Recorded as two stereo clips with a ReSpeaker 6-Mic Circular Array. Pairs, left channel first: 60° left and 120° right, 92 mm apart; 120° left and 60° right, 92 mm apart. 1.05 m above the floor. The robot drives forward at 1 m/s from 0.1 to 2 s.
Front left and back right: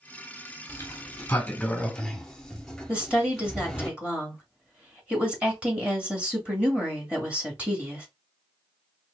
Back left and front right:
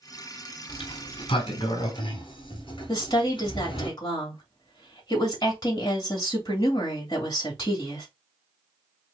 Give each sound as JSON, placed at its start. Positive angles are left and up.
{"t": 0.7, "sound": "a sliding door", "azimuth_deg": 115, "distance_m": 1.4}
{"t": 2.9, "sound": "a woman speaking", "azimuth_deg": 165, "distance_m": 2.5}